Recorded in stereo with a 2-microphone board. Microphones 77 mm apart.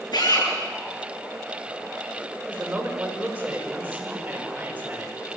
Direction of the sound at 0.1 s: 65° left (ahead or behind).